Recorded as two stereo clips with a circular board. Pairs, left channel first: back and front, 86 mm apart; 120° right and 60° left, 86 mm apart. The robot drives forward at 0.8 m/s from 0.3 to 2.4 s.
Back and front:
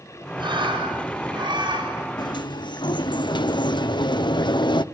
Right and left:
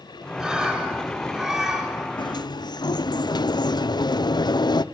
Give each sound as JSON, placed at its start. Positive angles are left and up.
{"t": 0.4, "sound": "a bird", "azimuth_deg": -20, "distance_m": 8.0}
{"t": 2.2, "sound": "a sliding door", "azimuth_deg": -150, "distance_m": 0.6}